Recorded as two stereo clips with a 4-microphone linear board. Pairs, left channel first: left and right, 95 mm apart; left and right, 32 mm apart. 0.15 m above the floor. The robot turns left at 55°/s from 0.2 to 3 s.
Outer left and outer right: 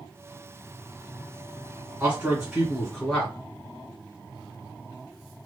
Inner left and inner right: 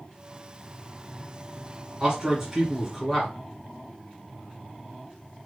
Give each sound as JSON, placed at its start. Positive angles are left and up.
{"t": 2.0, "sound": "a man speaking", "azimuth_deg": -140, "distance_m": 1.6}